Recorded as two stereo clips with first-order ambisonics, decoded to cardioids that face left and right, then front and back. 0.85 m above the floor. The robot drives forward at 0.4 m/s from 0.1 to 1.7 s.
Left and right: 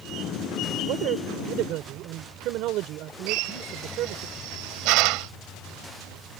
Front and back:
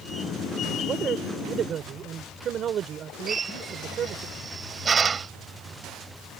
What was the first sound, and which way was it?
A man speaking, 120° right.